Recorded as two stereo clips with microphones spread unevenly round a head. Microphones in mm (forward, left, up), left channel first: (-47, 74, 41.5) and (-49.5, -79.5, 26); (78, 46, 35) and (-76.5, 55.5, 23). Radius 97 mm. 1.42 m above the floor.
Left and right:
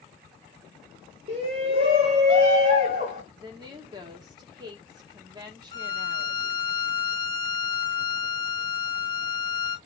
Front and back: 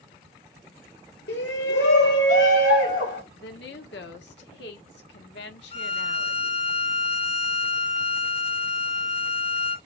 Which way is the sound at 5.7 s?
30° left.